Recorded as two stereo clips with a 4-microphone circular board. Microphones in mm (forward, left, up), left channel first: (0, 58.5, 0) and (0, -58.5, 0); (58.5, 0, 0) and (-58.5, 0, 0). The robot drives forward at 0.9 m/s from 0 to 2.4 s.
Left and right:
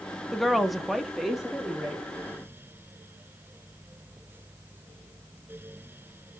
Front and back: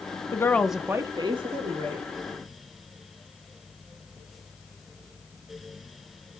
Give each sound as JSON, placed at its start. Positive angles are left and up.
{"t": 0.3, "sound": "a woman speaking", "azimuth_deg": 0, "distance_m": 0.7}